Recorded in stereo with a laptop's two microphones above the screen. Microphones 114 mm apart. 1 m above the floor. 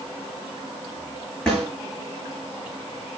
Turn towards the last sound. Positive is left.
turn(degrees=5)  # may be behind; listen again after turning